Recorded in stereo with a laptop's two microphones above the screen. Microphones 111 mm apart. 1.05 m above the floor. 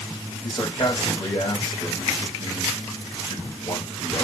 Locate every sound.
0.4 s a man speaking: 40° left (ahead or behind), 7.5 m